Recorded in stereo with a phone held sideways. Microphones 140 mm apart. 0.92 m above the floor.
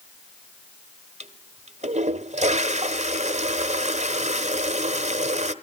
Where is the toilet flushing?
55° right (ahead or behind), 0.9 m.